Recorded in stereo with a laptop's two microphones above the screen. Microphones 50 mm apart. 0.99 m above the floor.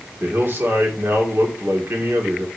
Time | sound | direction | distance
0.2 | a man speaking | 45° right (ahead or behind) | 2 m